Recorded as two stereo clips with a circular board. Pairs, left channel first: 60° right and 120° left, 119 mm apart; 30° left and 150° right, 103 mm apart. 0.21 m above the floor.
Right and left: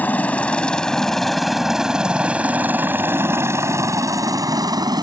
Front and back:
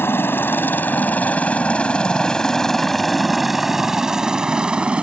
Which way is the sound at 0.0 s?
5° right.